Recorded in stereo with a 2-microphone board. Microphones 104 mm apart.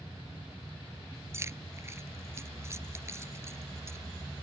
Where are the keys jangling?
25° right (ahead or behind).